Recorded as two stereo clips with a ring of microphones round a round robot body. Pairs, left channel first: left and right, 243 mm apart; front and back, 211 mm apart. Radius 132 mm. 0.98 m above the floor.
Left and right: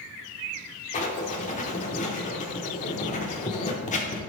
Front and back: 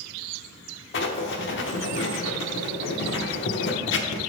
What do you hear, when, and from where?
0.9 s writing: 30° left, 1.0 m